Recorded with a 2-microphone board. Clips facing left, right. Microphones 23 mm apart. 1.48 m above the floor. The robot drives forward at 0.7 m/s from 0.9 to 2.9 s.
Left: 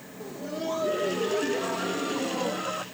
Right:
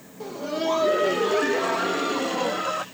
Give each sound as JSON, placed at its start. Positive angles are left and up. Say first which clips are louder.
{"t": 0.2, "sound": "laughter", "louder": "right 6 dB", "side_deg": -50}